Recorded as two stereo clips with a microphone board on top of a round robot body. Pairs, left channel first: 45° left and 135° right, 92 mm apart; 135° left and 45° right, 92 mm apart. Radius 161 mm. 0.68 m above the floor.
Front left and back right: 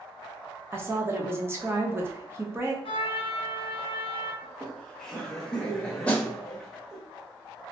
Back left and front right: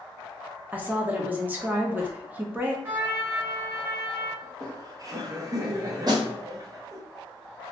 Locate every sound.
0.7 s a woman speaking: 100° right, 1.0 m
2.9 s a trumpet: 20° left, 0.9 m
4.4 s laughter: 35° right, 0.8 m
6.1 s a snare drum: 30° right, 1.2 m